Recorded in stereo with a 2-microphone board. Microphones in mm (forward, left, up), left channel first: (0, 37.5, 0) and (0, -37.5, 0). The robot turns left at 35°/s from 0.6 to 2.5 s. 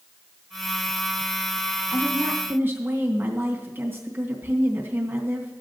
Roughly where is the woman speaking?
Right.